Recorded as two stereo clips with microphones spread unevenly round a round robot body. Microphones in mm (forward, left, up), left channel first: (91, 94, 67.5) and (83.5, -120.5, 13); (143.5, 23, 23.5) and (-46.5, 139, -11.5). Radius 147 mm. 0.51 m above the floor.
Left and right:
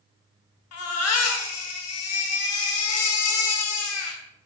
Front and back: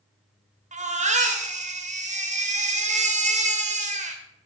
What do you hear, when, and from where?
0.7 s a baby crying: 100° left, 1.6 m